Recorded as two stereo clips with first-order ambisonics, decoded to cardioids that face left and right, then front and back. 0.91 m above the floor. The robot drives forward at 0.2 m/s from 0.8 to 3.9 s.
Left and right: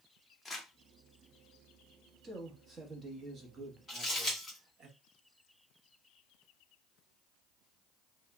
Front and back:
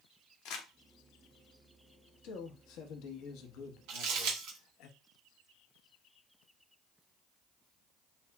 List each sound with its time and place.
0.5 s crumpling: 10° left, 0.7 m
2.2 s a man speaking: 20° right, 1.0 m; by 4.9 s 30° right, 0.7 m
3.9 s crumpling: 170° left, 1.8 m